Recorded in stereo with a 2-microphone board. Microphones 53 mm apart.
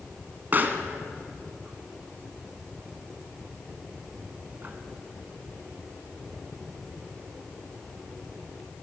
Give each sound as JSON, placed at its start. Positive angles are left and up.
{"t": 0.5, "sound": "a pop", "side_deg": -35, "distance_m": 2.0}